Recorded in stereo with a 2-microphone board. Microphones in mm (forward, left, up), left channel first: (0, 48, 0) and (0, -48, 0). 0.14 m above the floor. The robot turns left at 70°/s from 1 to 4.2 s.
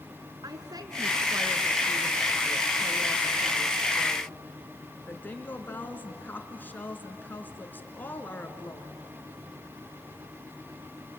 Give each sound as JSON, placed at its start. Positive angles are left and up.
{"t": 0.4, "sound": "a woman speaking", "azimuth_deg": -105, "distance_m": 1.9}